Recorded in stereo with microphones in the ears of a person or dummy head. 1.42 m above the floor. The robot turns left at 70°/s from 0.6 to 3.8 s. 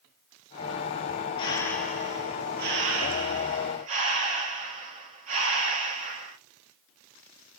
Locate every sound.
1.4 s breathing: 30° left, 1.1 m; by 6.4 s 140° right, 1.1 m